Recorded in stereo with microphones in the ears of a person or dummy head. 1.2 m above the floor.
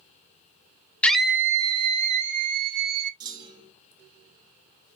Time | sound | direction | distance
1.0 | a scream | 10° left (ahead or behind) | 0.8 m
3.2 | a clunk | 20° right (ahead or behind) | 1.0 m